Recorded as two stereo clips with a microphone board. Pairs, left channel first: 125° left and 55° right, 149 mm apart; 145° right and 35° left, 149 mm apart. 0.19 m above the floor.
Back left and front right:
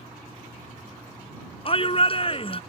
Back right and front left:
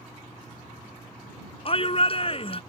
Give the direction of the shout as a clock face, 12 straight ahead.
6 o'clock.